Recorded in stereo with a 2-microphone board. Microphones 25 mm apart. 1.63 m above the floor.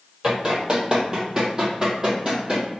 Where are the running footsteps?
35° right (ahead or behind), 2.0 m.